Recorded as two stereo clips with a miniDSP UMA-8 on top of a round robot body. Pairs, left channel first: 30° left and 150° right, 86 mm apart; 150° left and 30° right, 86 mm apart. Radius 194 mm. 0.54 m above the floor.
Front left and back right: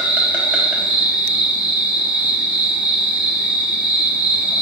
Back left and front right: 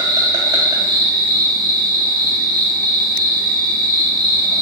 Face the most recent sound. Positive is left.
turn(degrees=-75)